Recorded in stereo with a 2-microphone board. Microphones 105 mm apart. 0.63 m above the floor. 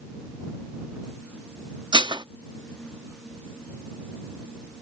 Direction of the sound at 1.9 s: 45° right (ahead or behind).